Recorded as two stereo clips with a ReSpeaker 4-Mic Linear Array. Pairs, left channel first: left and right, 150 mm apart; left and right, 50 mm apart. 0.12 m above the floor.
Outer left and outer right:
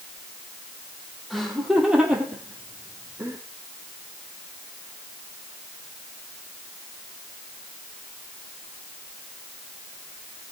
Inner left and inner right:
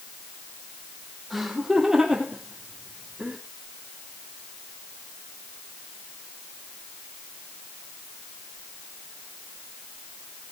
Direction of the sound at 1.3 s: Centre (ahead or behind).